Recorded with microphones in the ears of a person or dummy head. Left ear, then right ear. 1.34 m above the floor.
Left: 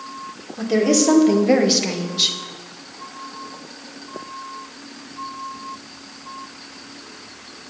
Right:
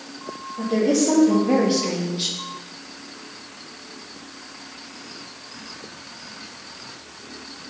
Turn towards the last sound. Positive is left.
turn(degrees=20)  # may be behind; listen again after turning